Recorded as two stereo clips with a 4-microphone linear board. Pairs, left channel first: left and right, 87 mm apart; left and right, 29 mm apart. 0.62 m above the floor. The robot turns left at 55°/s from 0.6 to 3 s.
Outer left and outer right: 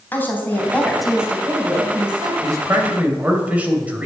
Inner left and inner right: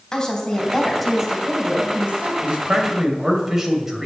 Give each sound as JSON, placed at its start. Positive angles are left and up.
{"t": 0.1, "sound": "a woman speaking", "azimuth_deg": 25, "distance_m": 3.0}
{"t": 2.4, "sound": "a man speaking", "azimuth_deg": -130, "distance_m": 2.5}